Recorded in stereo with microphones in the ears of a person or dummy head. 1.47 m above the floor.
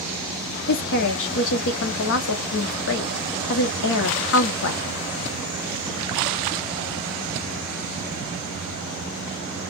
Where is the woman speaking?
75° left (ahead or behind), 0.6 m.